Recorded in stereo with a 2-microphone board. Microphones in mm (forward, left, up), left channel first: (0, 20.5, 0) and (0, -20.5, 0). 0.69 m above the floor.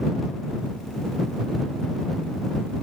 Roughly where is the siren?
No siren in this recording.